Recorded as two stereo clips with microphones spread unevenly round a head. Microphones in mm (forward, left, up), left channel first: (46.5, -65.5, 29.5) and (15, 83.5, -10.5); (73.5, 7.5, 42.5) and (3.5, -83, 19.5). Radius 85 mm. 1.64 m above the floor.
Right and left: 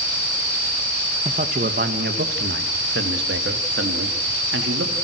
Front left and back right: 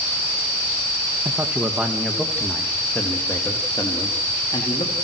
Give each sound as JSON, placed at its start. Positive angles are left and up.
{"t": 1.2, "sound": "a man speaking", "azimuth_deg": 155, "distance_m": 2.0}